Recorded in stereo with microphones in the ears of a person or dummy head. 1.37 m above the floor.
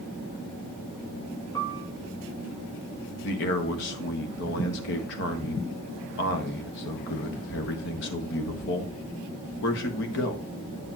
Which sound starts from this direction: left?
A man speaking, at 3.2 s.